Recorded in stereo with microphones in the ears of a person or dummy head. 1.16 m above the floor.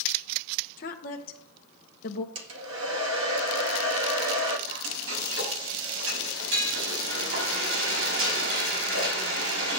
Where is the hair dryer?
75° right (ahead or behind), 1.9 m.